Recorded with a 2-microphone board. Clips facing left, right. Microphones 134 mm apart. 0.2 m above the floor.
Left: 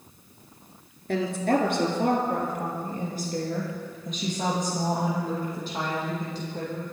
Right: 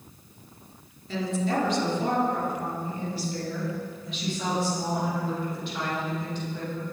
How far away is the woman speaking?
About 2.5 m.